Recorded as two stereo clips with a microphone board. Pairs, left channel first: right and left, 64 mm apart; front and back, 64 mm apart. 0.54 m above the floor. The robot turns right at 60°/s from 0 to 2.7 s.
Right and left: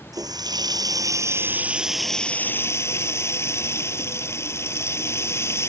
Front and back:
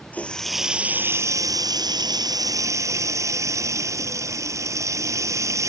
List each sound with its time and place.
0.1 s a running tap: 65° left; by 5.7 s 140° right